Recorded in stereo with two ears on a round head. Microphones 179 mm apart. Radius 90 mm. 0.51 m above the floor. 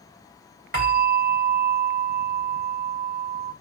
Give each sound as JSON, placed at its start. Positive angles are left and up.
{"t": 0.7, "sound": "a bell", "side_deg": -45, "distance_m": 1.8}